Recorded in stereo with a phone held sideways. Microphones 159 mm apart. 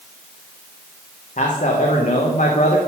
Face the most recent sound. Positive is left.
turn(degrees=50)  # may be behind; listen again after turning